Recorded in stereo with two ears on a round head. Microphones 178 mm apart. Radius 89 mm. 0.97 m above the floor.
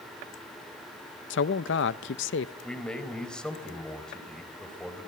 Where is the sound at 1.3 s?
65° left (ahead or behind), 0.6 m.